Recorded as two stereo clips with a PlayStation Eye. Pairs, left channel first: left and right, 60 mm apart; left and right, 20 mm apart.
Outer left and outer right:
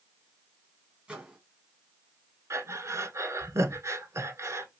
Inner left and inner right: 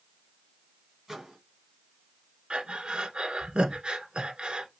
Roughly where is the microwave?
Centre.